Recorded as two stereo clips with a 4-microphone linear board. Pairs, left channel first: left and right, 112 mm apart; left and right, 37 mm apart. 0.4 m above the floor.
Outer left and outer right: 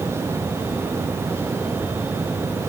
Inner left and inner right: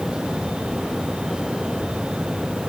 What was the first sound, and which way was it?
Only background noise.